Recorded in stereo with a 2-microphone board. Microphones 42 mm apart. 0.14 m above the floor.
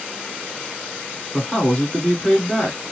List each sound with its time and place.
1.3 s a man speaking: 25° left (ahead or behind), 2 m